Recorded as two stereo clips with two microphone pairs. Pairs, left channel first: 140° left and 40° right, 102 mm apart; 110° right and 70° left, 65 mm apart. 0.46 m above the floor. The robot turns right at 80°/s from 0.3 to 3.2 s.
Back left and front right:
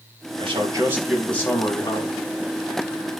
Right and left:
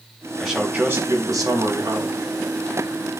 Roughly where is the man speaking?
Ahead.